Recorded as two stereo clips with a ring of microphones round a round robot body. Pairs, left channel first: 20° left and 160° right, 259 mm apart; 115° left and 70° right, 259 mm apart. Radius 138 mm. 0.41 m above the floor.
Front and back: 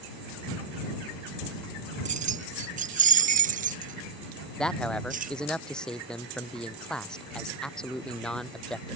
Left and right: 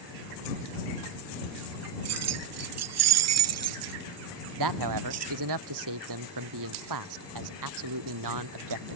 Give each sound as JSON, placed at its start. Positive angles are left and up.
{"t": 2.0, "sound": "keys jangling", "azimuth_deg": -95}
{"t": 4.6, "sound": "a man speaking", "azimuth_deg": -65}